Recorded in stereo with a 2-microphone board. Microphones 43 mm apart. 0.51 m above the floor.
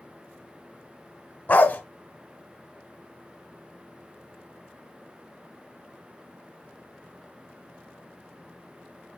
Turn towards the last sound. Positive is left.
turn(degrees=40)  # may be behind; listen again after turning